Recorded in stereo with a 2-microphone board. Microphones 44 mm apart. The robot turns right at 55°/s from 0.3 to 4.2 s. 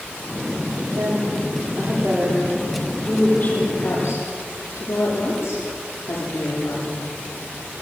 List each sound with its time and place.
0.9 s a woman speaking: 80° right, 9.5 m; by 7.1 s 80° left, 9.5 m